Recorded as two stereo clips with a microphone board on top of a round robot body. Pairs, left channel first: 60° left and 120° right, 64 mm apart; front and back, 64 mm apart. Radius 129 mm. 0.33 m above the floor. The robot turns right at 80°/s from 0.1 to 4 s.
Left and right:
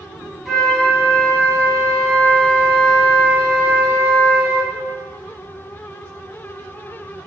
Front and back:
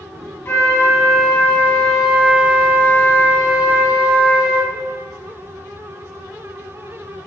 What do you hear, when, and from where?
0.5 s a flute: 40° right, 1.4 m; by 4.7 s 120° right, 1.4 m